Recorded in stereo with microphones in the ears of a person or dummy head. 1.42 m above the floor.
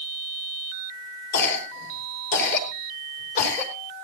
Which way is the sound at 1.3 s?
45° left (ahead or behind).